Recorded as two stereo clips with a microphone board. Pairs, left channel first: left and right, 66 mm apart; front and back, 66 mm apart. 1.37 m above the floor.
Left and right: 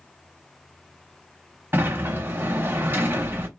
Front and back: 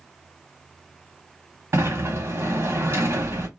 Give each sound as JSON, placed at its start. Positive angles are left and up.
{"t": 1.7, "sound": "a sliding door", "azimuth_deg": -140, "distance_m": 1.4}